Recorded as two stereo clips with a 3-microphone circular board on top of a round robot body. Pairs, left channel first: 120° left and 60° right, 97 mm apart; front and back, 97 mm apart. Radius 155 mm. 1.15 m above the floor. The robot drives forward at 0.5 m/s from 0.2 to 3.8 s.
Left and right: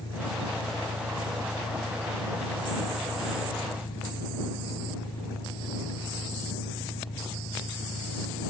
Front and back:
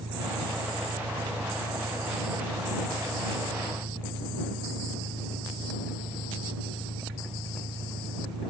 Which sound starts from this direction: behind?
An engine running, at 0.0 s.